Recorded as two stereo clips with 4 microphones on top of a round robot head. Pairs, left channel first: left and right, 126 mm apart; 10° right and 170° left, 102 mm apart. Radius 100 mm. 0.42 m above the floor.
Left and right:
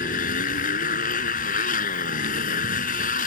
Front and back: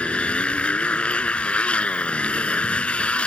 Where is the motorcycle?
65° left.